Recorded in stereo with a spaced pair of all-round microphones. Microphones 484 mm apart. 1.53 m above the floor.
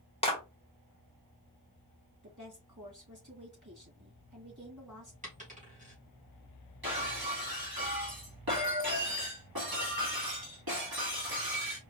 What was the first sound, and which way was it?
A clap, 10° left (ahead or behind).